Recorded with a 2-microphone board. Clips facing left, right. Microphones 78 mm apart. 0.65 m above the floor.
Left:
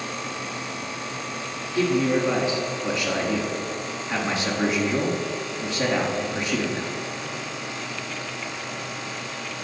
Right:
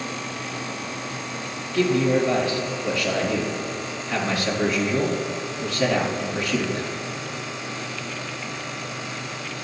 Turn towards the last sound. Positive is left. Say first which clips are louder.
# right 2 dB
turn(degrees=20)  # may be behind; listen again after turning